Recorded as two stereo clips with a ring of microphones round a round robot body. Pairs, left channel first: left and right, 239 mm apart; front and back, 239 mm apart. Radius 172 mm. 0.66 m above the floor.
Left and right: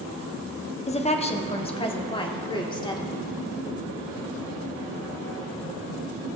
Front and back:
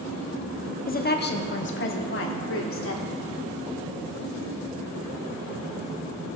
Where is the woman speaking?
35° left, 1.1 m; by 3.3 s 20° left, 2 m.